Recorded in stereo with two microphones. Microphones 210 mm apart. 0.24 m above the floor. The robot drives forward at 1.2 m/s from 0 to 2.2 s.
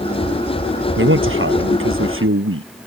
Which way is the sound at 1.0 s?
70° right (ahead or behind).